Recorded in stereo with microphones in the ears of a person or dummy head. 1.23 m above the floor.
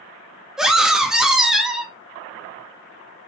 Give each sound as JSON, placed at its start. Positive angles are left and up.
{"t": 0.6, "sound": "a scream", "side_deg": 0, "distance_m": 0.5}